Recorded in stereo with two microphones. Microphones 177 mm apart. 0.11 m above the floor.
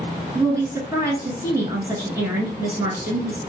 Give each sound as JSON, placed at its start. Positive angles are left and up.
{"t": 0.3, "sound": "a woman speaking", "side_deg": -20, "distance_m": 1.2}